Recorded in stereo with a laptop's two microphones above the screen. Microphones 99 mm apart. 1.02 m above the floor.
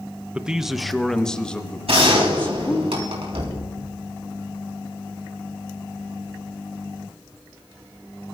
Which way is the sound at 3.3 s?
60° right (ahead or behind).